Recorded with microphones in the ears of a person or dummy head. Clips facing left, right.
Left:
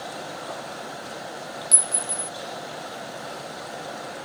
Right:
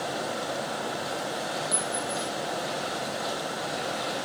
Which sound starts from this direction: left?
A clink, at 1.7 s.